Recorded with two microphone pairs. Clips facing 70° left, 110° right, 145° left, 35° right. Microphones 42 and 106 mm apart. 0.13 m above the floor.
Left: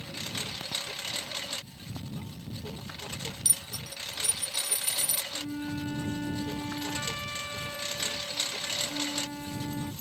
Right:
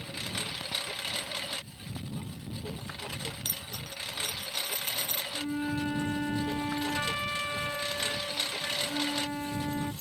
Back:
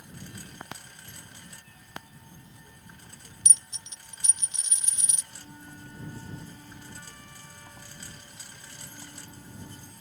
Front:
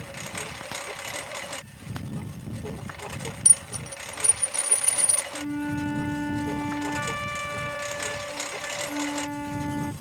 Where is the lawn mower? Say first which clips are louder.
Right 1 dB, front 9 dB; 25° right.